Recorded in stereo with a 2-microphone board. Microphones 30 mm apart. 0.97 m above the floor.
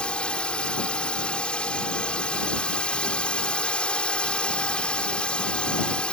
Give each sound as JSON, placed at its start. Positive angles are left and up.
{"t": 0.0, "sound": "a drone", "side_deg": 40}